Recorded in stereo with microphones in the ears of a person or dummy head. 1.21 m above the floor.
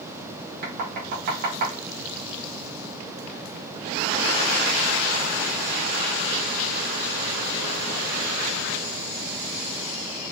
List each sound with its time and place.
0.6 s knocking: 60° right (ahead or behind), 1.1 m